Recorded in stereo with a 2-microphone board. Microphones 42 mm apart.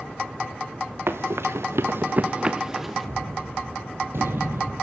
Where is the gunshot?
65° right (ahead or behind), 3 m.